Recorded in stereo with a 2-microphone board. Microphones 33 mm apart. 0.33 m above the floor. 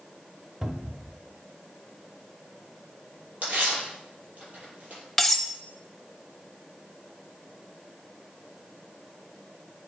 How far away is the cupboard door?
About 0.9 m.